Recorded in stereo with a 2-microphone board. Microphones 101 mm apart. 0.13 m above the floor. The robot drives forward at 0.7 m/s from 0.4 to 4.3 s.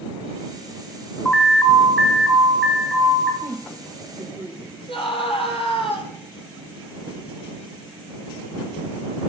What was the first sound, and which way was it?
An alarm, 5° left (ahead or behind).